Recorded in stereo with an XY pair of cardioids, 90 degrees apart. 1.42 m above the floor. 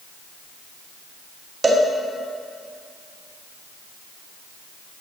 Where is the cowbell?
35° right, 1.3 m.